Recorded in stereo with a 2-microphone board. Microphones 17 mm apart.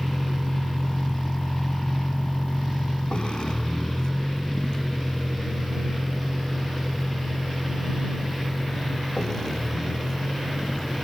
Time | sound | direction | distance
0.0 | a vehicle | 35° left (ahead or behind) | ?